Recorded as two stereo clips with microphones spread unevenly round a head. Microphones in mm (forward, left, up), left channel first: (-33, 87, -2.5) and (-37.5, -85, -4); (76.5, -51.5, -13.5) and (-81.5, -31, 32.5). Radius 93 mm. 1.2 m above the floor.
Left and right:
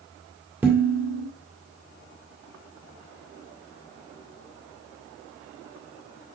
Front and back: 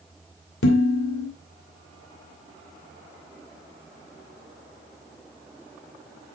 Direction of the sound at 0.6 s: 10° right.